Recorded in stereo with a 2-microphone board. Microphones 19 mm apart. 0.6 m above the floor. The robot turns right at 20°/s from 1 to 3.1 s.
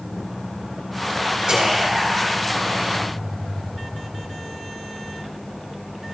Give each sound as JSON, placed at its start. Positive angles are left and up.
{"t": 1.5, "sound": "whispering", "side_deg": -60, "distance_m": 3.5}